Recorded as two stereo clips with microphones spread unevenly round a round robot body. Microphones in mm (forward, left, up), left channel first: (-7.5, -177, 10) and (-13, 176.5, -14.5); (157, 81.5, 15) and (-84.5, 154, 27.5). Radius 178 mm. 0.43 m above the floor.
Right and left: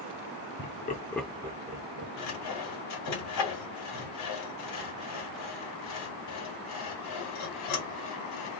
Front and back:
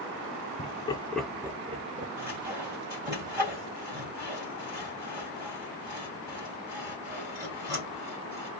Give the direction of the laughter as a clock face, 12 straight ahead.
2 o'clock.